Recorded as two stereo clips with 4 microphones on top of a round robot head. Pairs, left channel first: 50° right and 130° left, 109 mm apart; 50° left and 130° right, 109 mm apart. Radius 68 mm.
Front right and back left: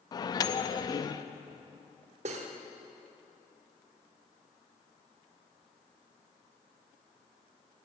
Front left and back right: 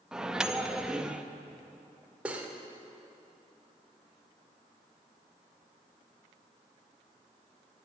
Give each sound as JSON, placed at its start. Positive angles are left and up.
{"t": 0.1, "sound": "a microwave", "azimuth_deg": -55, "distance_m": 0.5}
{"t": 2.2, "sound": "cutlery clinking", "azimuth_deg": 150, "distance_m": 1.1}